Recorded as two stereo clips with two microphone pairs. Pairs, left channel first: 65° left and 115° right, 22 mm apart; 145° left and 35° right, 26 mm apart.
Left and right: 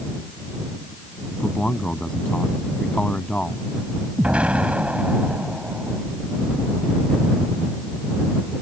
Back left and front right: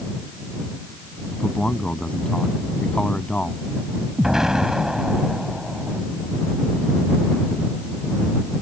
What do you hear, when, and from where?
1.3 s a man speaking: 95° left
4.2 s an explosion: 105° right